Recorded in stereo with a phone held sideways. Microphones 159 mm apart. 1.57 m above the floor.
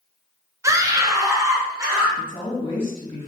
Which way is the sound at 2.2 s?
35° left (ahead or behind).